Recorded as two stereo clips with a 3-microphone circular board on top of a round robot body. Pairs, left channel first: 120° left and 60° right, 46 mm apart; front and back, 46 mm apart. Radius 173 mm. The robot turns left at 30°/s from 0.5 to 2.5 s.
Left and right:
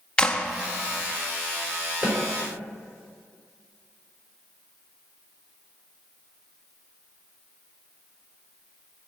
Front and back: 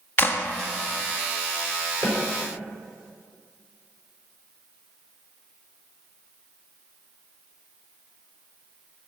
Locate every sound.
0.2 s a clap: 45° left, 1.3 m
2.0 s a snare drum: 20° left, 4.5 m; by 2.2 s 15° left, 4.5 m